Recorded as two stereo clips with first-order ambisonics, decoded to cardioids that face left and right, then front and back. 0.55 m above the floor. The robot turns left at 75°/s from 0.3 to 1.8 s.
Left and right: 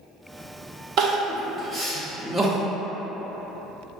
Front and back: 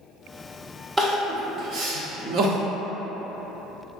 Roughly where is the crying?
Right.